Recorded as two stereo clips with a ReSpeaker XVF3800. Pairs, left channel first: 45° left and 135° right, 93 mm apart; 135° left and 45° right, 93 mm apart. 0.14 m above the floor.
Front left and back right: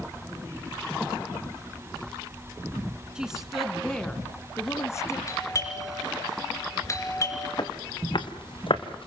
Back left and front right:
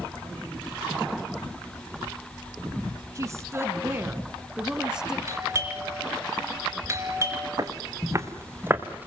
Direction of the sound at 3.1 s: 60° right.